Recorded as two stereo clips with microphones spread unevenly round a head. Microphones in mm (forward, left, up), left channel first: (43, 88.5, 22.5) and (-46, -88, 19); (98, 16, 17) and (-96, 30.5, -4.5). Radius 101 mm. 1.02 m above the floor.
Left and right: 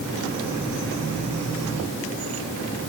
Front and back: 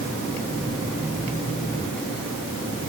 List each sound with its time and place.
Only background noise.